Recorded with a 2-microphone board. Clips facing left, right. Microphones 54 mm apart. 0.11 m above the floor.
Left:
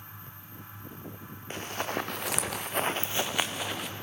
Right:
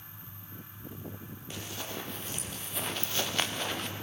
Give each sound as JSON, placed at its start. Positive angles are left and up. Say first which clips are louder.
{"t": 1.5, "sound": "running footsteps", "louder": "left 8 dB", "side_deg": 40, "distance_m": 1.2}